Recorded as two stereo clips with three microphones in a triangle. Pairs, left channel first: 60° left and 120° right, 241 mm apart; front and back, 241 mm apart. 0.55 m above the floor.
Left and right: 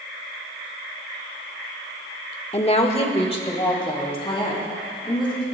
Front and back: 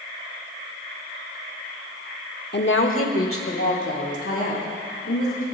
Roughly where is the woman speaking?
Ahead.